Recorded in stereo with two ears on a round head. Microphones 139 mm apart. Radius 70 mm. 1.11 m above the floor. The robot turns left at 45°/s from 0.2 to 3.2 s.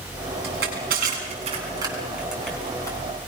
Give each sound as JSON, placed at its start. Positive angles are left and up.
{"t": 0.4, "sound": "crushing", "side_deg": -85, "distance_m": 7.5}